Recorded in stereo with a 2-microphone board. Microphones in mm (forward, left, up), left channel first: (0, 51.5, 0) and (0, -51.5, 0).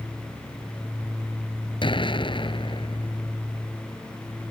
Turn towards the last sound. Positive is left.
turn(degrees=55)  # may be behind; listen again after turning